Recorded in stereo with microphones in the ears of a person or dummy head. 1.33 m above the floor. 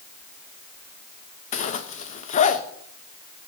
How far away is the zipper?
About 1.0 m.